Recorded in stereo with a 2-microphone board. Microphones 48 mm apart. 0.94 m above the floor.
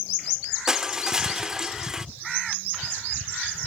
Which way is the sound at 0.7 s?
10° right (ahead or behind).